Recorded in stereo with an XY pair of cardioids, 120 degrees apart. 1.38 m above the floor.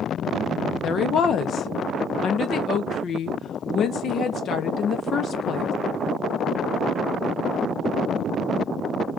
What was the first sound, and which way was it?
A woman speaking, 50° left.